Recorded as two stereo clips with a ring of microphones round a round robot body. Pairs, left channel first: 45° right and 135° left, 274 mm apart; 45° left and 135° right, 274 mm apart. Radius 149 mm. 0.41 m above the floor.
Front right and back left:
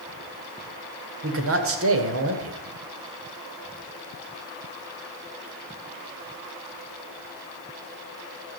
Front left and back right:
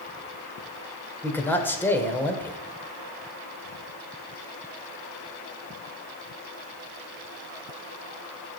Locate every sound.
1.2 s a man speaking: 125° left, 1.9 m